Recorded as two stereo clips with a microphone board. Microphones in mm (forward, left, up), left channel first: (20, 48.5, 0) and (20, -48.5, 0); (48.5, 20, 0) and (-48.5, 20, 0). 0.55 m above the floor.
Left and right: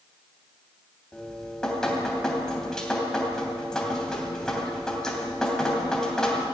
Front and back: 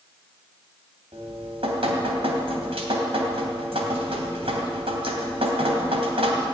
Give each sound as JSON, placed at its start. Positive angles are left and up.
{"t": 1.1, "sound": "dripping", "azimuth_deg": 175, "distance_m": 3.0}